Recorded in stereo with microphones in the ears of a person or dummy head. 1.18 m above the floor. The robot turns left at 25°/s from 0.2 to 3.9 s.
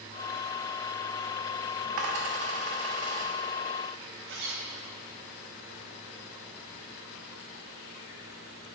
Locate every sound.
2.0 s a dropped coin: 50° right (ahead or behind), 0.9 m; by 3.3 s 25° right (ahead or behind), 0.9 m
4.3 s a zipper: 60° right (ahead or behind), 1.0 m